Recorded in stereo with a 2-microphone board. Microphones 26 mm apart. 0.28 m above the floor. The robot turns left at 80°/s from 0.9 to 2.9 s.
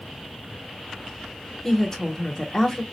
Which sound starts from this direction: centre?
A woman speaking, at 1.6 s.